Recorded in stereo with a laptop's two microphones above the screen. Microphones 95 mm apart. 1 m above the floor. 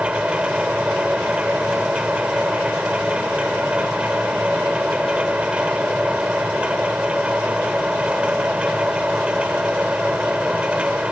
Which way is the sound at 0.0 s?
10° right (ahead or behind).